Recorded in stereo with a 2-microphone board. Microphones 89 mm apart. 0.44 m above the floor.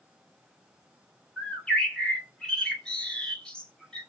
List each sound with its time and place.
1.4 s a bird: 10° left (ahead or behind), 1.0 m